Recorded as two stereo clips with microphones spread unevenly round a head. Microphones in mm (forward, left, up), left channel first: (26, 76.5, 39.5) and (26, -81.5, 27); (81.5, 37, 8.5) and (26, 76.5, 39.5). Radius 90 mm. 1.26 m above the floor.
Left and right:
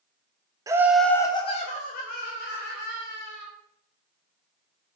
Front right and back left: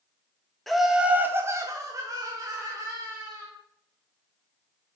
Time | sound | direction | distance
0.7 | laughter | 55° right | 0.5 m